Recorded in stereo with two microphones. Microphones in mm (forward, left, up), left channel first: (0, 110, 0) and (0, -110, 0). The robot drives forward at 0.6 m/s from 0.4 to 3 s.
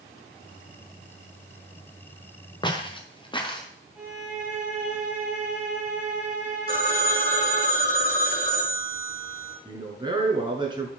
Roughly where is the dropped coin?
I don't hear a dropped coin.